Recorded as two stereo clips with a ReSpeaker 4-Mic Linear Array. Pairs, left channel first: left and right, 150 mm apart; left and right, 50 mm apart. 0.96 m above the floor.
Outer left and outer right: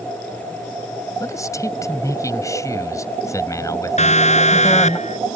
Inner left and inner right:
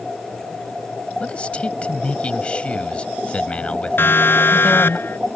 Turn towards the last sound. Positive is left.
turn(degrees=55)  # may be behind; listen again after turning